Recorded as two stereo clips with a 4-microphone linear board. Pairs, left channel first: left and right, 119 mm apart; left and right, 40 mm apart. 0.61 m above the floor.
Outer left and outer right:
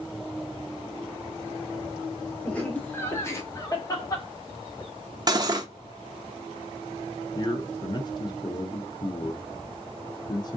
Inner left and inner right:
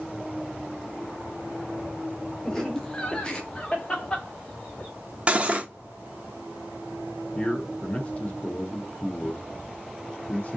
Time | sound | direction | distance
2.5 | laughter | 10° left (ahead or behind) | 1.0 m
5.3 | cutlery clinking | 35° right (ahead or behind) | 0.5 m
7.3 | a man speaking | 35° left (ahead or behind) | 0.8 m